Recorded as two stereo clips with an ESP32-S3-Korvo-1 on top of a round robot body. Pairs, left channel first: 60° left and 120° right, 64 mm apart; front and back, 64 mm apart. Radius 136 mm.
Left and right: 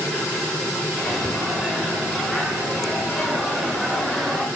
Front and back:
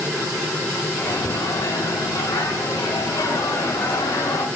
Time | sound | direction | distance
0.9 | a microwave | 30° right | 2.5 m